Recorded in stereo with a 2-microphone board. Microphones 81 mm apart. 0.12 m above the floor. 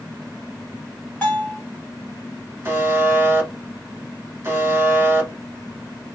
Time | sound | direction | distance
1.2 | a bell | 20° left (ahead or behind) | 2.0 m
2.6 | a buzzer | 30° right (ahead or behind) | 1.2 m